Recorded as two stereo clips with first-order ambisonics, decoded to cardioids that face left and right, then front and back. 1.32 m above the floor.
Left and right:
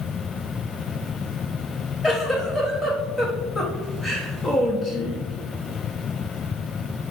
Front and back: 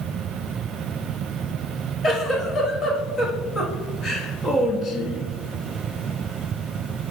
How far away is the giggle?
About 0.7 m.